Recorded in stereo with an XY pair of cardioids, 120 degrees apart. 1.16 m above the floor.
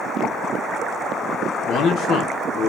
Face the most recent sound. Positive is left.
turn(degrees=60)